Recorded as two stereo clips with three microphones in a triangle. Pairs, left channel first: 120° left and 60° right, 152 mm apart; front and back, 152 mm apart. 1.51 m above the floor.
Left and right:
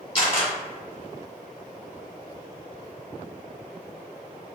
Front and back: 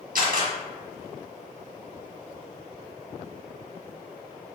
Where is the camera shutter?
170° left, 1.6 m.